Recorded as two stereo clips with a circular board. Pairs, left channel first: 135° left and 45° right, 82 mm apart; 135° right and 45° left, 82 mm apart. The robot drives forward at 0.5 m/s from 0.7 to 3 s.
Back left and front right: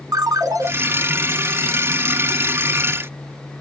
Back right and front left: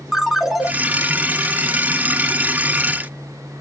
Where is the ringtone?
40° right, 0.6 m.